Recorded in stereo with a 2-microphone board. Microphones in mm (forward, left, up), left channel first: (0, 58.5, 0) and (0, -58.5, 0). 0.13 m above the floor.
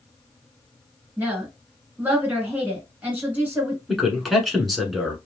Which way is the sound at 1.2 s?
15° right (ahead or behind).